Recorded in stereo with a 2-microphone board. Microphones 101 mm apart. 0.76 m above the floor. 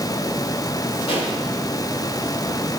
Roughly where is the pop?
Left.